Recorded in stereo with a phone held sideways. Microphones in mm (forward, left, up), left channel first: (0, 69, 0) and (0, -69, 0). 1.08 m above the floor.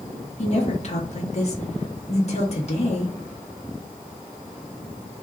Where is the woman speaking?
50° left (ahead or behind), 1.2 m.